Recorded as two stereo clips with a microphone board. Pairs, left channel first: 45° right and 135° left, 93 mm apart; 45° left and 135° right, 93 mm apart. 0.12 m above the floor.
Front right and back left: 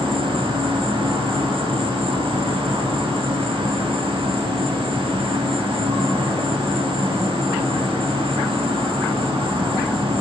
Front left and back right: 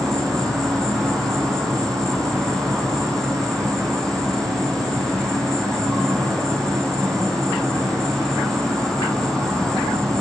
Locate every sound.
0.0 s an insect: 130° left, 4.5 m